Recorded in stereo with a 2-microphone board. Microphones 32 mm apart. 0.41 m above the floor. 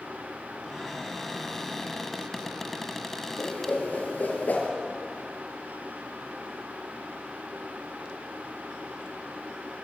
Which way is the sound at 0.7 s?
10° left (ahead or behind).